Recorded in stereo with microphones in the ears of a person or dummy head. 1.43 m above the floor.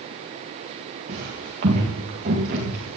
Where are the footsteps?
45° right (ahead or behind), 5 m.